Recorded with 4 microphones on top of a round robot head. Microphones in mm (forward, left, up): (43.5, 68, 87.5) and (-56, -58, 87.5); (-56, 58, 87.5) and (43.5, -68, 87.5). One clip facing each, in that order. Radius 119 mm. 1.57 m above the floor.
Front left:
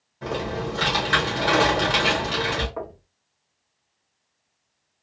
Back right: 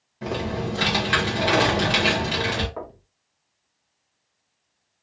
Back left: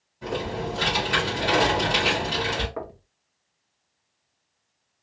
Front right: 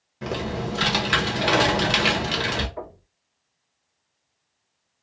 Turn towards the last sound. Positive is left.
turn(degrees=140)